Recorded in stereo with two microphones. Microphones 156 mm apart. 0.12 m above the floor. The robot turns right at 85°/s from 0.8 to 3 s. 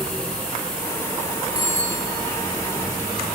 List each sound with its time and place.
1.6 s a bicycle bell: 175° right, 7 m; by 2.1 s 125° right, 7 m